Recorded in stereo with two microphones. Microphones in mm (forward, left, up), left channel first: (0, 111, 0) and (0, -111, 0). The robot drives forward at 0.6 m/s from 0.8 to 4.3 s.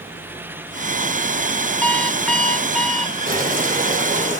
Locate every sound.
1.8 s an alarm clock: 5° left (ahead or behind), 0.6 m; by 3.2 s centre (ahead or behind), 1.2 m
3.3 s boiling: 40° right (ahead or behind), 3 m; by 4.4 s 35° right (ahead or behind), 3.5 m